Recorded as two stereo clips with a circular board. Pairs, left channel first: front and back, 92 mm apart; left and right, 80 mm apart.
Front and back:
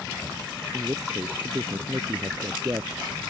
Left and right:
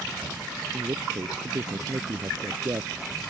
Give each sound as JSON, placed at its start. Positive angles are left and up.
{"t": 0.7, "sound": "a man speaking", "azimuth_deg": -125}